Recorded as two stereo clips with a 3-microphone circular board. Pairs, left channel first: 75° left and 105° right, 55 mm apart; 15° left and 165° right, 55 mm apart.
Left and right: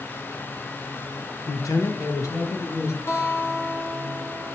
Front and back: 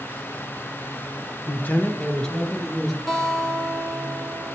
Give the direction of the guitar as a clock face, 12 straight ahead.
9 o'clock.